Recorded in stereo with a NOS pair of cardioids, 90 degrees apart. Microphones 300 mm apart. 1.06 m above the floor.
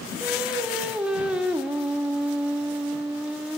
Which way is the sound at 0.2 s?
5° right.